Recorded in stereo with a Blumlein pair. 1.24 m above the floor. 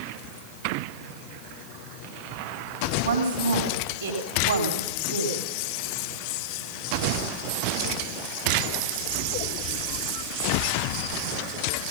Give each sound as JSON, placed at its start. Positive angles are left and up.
{"t": 3.0, "sound": "a woman speaking", "azimuth_deg": -65, "distance_m": 3.5}